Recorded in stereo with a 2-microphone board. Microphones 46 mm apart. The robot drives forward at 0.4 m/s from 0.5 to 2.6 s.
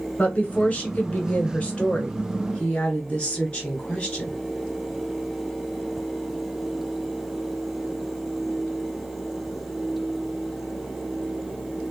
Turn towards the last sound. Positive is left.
turn(degrees=25)  # may be behind; listen again after turning